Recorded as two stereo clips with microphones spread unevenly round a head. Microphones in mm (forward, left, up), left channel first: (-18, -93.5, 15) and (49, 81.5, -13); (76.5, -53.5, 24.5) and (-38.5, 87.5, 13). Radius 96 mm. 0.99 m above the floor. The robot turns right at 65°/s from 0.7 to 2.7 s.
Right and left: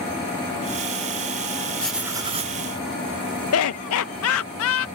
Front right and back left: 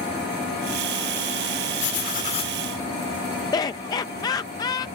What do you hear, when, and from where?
1.8 s writing: 30° right; by 2.6 s 20° left
3.5 s laughter: 120° right